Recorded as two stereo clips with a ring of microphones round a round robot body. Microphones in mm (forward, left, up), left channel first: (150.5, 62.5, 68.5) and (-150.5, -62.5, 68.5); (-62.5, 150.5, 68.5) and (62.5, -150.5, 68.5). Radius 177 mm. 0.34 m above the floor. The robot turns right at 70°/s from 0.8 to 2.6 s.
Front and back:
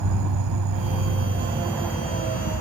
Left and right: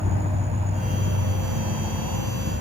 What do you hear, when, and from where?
0.0 s an insect: 135° right; by 2.6 s 10° right